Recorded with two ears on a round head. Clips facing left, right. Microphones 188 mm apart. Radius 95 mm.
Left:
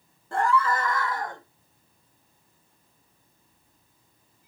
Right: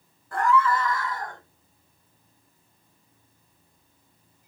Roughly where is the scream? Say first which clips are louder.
Right 2 dB; left.